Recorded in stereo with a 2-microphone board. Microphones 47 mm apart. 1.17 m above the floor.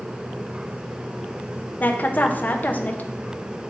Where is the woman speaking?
40° left (ahead or behind), 0.7 m.